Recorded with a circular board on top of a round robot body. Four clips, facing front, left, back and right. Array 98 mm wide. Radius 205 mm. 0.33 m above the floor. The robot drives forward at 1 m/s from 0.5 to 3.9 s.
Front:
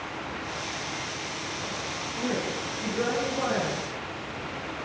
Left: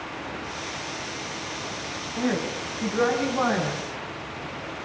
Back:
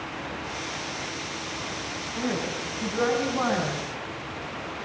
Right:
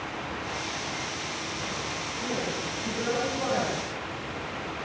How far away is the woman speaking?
About 4 m.